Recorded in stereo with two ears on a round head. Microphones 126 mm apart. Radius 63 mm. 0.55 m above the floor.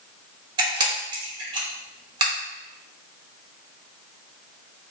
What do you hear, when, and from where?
0.6 s a camera shutter: 30° right (ahead or behind), 1.0 m